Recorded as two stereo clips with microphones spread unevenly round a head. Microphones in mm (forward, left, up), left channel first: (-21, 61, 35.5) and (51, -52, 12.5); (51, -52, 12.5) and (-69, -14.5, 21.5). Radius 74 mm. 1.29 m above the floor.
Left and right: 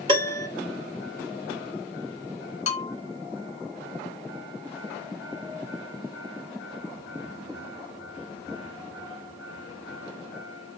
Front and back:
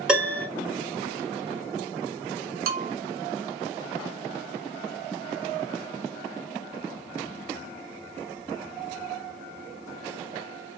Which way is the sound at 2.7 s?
165° left.